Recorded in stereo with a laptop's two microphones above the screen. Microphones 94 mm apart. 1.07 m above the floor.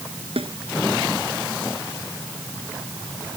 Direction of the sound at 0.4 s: 75° right (ahead or behind).